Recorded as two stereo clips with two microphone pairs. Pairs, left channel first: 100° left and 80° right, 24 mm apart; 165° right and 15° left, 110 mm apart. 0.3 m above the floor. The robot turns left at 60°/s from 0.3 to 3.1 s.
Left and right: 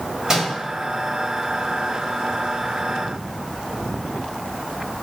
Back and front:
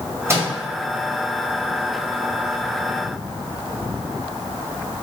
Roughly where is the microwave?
Ahead right.